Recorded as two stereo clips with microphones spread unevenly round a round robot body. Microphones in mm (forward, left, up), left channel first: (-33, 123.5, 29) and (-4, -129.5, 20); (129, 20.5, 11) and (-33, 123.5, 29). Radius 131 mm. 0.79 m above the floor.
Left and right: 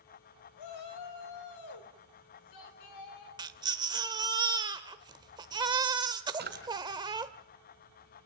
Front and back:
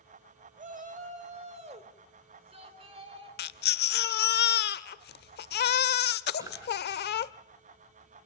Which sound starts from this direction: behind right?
A drawer, at 6.4 s.